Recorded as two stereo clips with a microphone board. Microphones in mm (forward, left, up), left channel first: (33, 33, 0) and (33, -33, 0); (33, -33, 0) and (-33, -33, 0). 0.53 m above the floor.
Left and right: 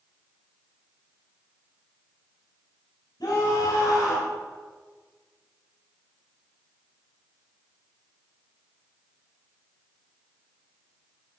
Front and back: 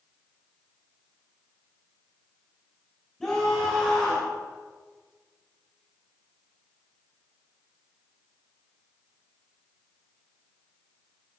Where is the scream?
80° left, 5 m.